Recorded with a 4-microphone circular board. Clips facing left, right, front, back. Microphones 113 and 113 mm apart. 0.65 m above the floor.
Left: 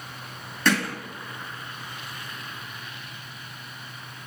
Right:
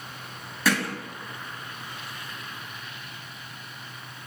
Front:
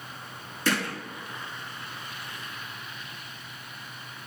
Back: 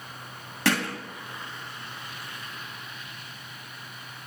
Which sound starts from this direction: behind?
Hammering, at 0.7 s.